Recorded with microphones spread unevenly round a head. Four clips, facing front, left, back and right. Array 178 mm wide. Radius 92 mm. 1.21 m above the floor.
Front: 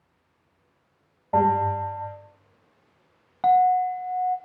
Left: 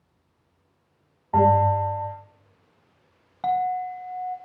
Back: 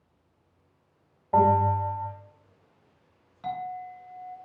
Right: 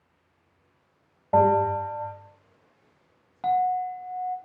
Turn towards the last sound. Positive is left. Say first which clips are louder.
# even, front 16 dB
turn(degrees=0)